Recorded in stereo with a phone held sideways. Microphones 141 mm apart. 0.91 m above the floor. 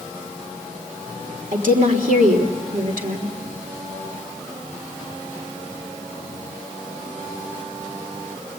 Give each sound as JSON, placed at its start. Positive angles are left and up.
{"t": 1.5, "sound": "a woman speaking", "side_deg": -75, "distance_m": 3.5}